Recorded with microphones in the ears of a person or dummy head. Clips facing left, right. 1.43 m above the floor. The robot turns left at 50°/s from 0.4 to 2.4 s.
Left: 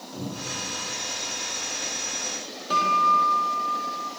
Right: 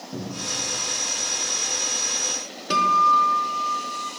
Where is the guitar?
35° right (ahead or behind), 1.0 m.